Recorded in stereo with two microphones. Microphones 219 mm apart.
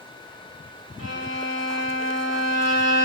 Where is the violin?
85° left, 0.8 m.